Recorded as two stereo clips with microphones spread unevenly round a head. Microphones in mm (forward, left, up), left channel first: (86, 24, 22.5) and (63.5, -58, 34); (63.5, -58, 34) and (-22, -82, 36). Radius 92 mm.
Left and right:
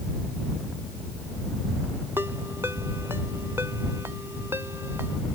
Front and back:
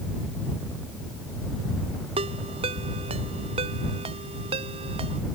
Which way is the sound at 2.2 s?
Straight behind.